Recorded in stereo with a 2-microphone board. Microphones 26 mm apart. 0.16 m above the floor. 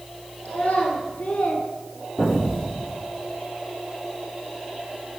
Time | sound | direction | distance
0.5 | a child speaking | 60° left (ahead or behind) | 1.8 m
2.2 | an explosion | 15° left (ahead or behind) | 3 m